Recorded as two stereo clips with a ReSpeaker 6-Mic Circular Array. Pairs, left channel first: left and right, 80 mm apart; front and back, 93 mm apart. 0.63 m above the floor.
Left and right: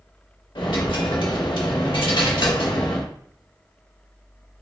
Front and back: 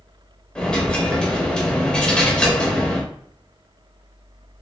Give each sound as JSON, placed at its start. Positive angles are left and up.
{"t": 0.6, "sound": "a dropped coin", "azimuth_deg": 80, "distance_m": 1.0}